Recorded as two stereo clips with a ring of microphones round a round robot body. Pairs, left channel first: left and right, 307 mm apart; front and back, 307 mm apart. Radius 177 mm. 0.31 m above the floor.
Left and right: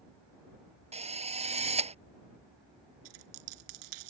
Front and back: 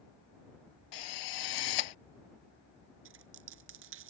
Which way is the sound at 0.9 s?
20° right.